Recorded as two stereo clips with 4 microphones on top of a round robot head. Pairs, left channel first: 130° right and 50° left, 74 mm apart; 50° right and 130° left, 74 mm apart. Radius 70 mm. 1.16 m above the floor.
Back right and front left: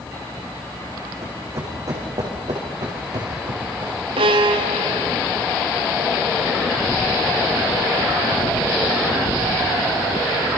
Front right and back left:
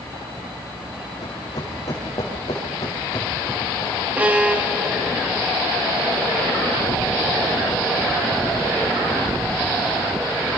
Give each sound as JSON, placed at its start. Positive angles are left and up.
{"t": 1.2, "sound": "running footsteps", "azimuth_deg": -5, "distance_m": 5.0}
{"t": 4.2, "sound": "a violin", "azimuth_deg": 55, "distance_m": 0.9}